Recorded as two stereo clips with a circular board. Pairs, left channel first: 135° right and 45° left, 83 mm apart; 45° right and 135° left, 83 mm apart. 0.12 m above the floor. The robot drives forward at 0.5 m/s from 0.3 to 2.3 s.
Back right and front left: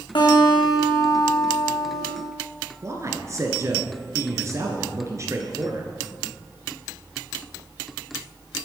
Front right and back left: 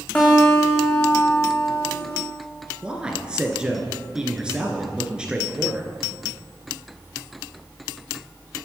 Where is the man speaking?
60° left, 2 m.